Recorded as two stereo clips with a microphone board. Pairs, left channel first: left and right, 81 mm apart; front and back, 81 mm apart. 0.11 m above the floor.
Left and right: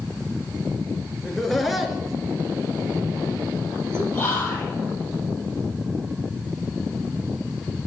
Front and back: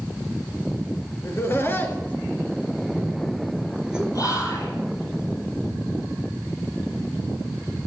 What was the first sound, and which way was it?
Laughter, 10° left.